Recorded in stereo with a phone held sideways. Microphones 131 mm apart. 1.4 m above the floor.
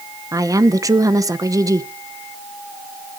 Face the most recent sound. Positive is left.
turn(degrees=-25)  # may be behind; listen again after turning